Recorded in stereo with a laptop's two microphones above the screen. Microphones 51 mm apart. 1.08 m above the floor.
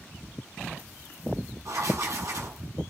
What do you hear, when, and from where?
1.6 s writing: 70° right (ahead or behind), 7.5 m